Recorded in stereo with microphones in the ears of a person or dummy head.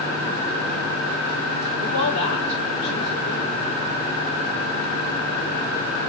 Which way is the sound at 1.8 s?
80° left.